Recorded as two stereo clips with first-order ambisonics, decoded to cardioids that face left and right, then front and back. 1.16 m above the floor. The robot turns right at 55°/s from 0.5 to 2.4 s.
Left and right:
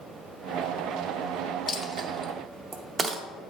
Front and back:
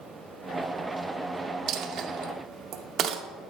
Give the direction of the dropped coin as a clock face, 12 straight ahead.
6 o'clock.